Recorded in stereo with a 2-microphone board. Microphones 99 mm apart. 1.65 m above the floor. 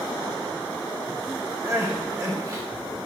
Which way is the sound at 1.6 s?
35° right (ahead or behind).